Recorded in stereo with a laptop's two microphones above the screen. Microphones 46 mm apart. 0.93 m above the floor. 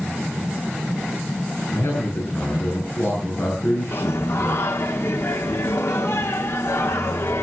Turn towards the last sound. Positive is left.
turn(degrees=75)  # may be behind; listen again after turning